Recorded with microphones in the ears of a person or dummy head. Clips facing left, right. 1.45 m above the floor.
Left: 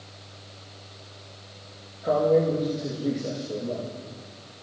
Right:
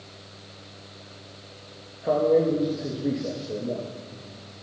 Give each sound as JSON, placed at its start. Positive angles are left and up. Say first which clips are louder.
{"t": 2.0, "sound": "a man speaking", "louder": "right 1 dB", "side_deg": -5, "distance_m": 2.0}